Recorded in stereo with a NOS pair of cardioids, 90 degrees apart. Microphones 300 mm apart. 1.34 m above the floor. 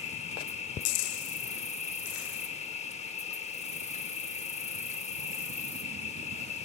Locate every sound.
0.0 s an insect: 20° left, 0.7 m